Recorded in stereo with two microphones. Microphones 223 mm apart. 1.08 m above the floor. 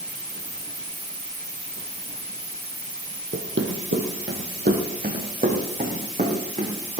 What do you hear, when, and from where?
3.3 s running footsteps: 60° right (ahead or behind), 2 m; by 7.0 s 30° right (ahead or behind), 5 m